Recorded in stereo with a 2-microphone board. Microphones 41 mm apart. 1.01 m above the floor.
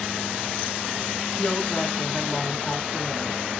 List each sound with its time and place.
1.4 s a woman speaking: 20° left (ahead or behind), 1.2 m